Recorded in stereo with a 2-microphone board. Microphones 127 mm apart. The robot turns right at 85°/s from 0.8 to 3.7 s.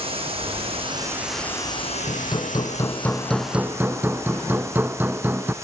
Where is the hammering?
70° left, 0.8 m; by 5.5 s 150° right, 0.8 m.